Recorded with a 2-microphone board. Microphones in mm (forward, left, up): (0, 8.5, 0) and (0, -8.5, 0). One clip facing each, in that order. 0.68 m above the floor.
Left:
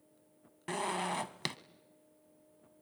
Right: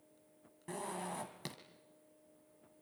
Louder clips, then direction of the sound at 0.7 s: Left 8 dB; 65° left (ahead or behind).